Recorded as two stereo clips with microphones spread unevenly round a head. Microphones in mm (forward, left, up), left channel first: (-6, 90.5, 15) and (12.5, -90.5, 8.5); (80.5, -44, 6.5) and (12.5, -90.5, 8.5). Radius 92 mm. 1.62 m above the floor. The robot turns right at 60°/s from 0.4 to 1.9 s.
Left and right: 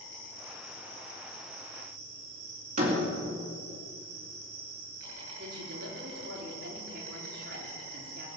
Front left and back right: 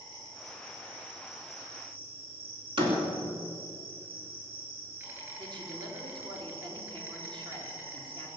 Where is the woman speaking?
120° right, 4 m.